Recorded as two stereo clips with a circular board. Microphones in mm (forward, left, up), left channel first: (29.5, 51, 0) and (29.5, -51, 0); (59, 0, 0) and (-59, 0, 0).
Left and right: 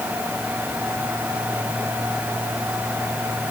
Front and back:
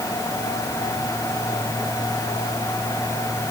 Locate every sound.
Only background noise.